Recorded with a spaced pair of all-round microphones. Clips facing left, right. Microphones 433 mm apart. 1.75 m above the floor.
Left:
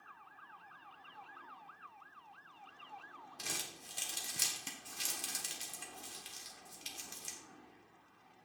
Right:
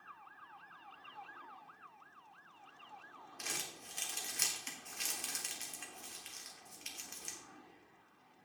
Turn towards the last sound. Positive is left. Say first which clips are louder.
# even
turn(degrees=55)  # may be behind; listen again after turning